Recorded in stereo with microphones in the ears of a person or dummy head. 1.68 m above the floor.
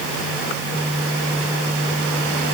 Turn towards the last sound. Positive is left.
No sound to turn to.